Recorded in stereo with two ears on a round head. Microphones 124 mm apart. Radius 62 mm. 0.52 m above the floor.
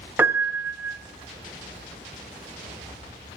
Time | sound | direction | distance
0.2 | a piano | 15° right (ahead or behind) | 0.5 m